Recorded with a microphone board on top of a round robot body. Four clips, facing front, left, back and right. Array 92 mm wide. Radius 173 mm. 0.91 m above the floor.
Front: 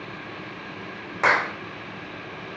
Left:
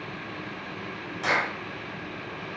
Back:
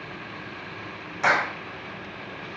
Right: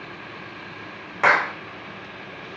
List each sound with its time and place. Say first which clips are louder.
1.2 s a clap: right 8 dB, front 1 dB; 55° right, 4.5 m